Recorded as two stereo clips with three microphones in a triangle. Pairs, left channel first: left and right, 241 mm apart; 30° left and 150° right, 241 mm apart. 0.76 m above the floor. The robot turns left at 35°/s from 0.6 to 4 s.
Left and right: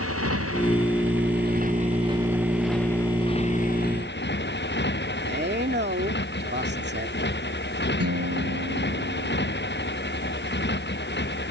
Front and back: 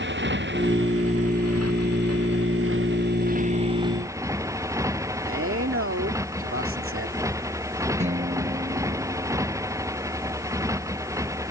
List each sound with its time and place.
0.0 s a motorcycle: 110° right; by 11.5 s 135° left
5.2 s a man speaking: 130° right
8.0 s a guitar: 90° right